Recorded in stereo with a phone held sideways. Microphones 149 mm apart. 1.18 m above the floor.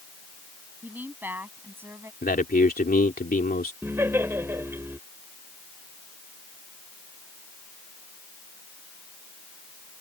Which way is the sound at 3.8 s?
15° right (ahead or behind).